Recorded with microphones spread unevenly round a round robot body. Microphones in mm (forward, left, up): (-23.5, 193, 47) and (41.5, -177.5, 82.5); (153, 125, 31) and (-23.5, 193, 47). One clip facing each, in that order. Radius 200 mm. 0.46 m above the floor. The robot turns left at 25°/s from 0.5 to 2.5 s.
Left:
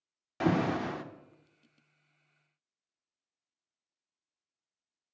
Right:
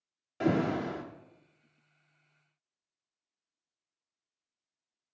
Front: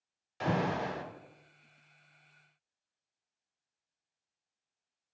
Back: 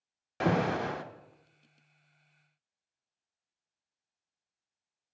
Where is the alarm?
155° left, 0.7 m; by 1.0 s 145° left, 0.7 m.